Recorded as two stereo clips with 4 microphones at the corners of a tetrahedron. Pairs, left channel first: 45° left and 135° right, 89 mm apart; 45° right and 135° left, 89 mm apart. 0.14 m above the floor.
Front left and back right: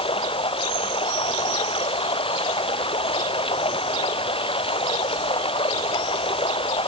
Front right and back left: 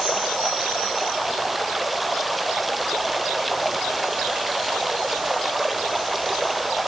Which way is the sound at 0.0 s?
45° left.